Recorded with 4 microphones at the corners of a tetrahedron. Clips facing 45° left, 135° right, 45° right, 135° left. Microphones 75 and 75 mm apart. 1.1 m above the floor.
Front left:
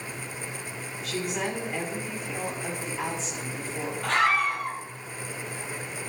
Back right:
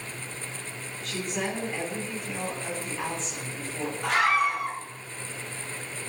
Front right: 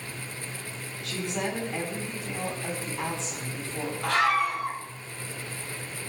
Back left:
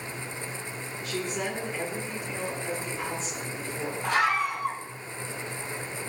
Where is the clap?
No clap in this recording.